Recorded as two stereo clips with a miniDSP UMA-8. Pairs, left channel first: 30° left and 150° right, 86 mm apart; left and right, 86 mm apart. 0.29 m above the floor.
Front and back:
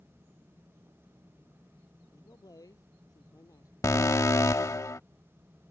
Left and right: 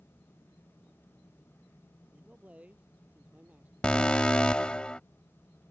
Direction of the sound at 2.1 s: 15° right.